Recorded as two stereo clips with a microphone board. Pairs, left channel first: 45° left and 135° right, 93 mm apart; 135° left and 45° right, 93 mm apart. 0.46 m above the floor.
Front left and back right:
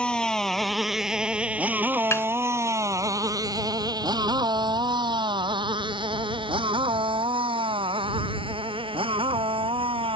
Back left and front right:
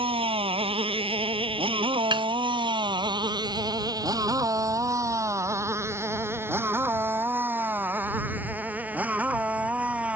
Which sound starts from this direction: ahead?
A snare drum, at 2.1 s.